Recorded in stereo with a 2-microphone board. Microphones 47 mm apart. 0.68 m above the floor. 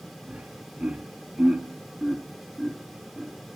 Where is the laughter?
40° right (ahead or behind), 1.1 m; by 3.3 s 5° left (ahead or behind), 1.8 m.